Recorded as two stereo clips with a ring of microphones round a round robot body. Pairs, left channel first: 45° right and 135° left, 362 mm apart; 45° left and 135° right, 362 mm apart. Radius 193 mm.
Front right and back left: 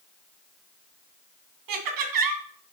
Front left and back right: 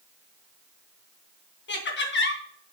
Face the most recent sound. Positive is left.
turn(degrees=105)